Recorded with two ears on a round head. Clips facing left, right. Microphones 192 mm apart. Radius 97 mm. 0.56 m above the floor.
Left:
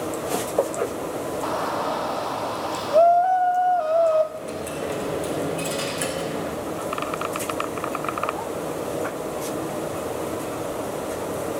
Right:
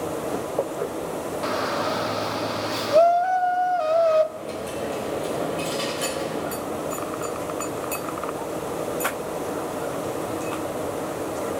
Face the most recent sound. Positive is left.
turn(degrees=20)  # may be behind; listen again after turning